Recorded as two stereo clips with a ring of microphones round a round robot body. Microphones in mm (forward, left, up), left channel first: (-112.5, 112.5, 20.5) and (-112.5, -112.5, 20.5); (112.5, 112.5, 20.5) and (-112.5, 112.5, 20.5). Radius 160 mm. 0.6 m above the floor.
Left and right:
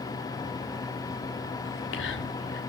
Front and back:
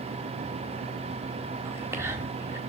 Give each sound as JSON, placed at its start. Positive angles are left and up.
{"t": 1.6, "sound": "whispering", "azimuth_deg": 105, "distance_m": 1.7}